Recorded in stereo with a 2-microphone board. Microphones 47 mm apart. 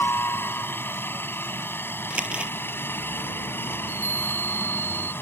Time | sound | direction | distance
0.0 | a helicopter | 50° left (ahead or behind) | ?
2.1 | crumpling | 20° right (ahead or behind) | ?
3.8 | a chime | 60° left (ahead or behind) | ?